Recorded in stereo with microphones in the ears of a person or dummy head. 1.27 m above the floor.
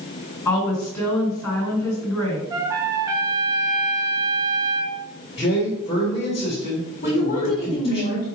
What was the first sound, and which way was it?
A woman speaking, 20° left (ahead or behind).